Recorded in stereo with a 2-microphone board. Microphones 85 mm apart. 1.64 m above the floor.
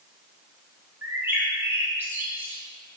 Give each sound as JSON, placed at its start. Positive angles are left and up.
{"t": 1.0, "sound": "a bird", "side_deg": -25, "distance_m": 1.8}